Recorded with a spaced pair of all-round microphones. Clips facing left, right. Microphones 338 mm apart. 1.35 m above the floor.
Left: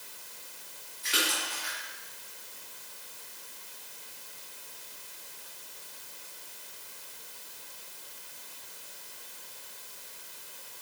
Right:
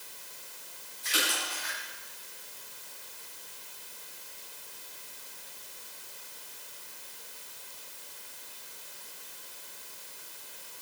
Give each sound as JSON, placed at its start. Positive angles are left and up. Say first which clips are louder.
{"t": 1.0, "sound": "a splash", "louder": "left 1 dB", "side_deg": 75, "distance_m": 6.0}